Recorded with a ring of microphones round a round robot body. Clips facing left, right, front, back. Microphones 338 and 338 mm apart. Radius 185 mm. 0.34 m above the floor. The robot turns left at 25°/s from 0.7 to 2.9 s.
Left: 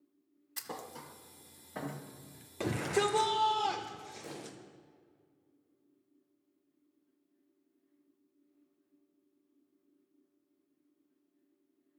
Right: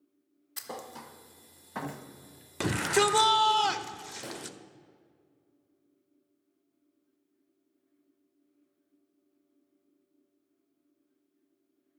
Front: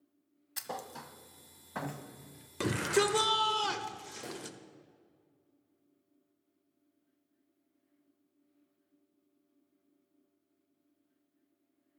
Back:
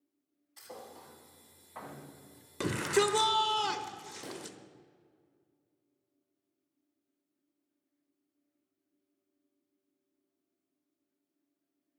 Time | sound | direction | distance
0.6 | a thud | 5° left | 1.3 m
2.6 | a shout | 90° right | 1.0 m
4.2 | a pop | 105° right | 4.5 m